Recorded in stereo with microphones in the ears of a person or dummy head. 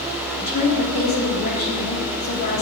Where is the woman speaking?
50° left (ahead or behind), 4.5 m.